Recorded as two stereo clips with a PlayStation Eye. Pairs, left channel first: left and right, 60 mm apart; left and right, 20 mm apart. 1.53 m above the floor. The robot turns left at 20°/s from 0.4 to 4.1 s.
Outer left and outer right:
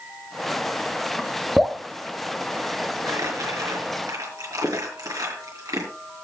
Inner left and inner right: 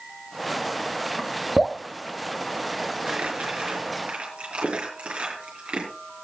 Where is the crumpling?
70° right (ahead or behind), 5.5 m; by 5.9 s 75° right (ahead or behind), 5.5 m.